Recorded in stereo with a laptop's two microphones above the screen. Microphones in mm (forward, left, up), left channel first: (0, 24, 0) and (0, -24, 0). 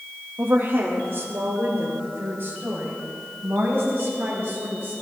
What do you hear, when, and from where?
0.4 s a woman speaking: 60° right (ahead or behind), 1.4 m; by 4.9 s 40° right (ahead or behind), 7.5 m